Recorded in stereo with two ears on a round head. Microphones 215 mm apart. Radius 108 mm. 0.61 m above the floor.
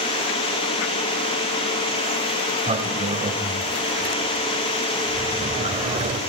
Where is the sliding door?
25° right (ahead or behind), 1.8 m.